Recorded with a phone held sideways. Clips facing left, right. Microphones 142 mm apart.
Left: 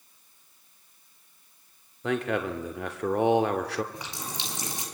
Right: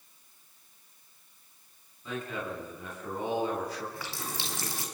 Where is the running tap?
20° left (ahead or behind), 4.5 m.